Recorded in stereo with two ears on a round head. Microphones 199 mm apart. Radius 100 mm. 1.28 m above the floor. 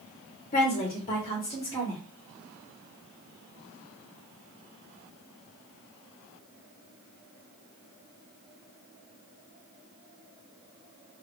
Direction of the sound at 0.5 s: 35° left (ahead or behind).